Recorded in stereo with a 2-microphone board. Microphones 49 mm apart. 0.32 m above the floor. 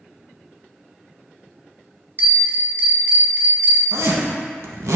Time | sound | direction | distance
2.2 | a bell | 40° right (ahead or behind) | 0.8 m
3.9 | a zipper | 85° right | 0.6 m